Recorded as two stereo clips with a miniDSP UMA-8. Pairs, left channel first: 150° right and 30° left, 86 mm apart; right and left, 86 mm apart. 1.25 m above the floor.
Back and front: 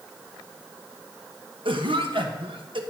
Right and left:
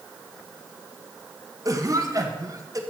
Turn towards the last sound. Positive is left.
turn(degrees=40)